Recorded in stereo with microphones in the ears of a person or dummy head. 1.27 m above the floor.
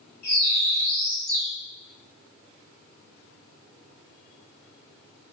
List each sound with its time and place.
0.2 s a bird: 45° left (ahead or behind), 1.4 m